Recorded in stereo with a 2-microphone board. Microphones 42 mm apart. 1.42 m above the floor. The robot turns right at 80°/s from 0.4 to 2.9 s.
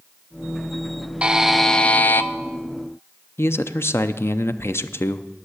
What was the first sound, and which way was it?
A buzzer, 25° right.